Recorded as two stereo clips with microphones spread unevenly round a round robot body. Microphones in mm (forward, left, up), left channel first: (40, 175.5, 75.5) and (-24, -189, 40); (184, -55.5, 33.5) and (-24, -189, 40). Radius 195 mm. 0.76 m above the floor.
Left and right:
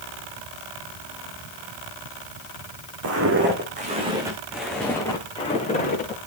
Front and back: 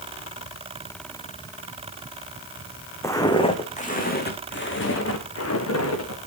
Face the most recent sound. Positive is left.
turn(degrees=15)